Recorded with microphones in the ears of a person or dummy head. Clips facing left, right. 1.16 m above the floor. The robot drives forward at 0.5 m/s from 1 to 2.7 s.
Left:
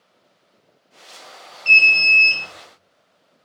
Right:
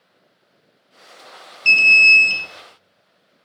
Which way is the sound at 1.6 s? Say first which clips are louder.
Right 2 dB; 75° right (ahead or behind).